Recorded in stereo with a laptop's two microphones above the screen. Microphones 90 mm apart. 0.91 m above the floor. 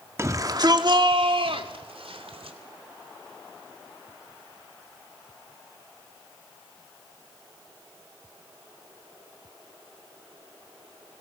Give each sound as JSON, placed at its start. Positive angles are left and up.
{"t": 0.2, "sound": "a shout", "side_deg": -30, "distance_m": 1.7}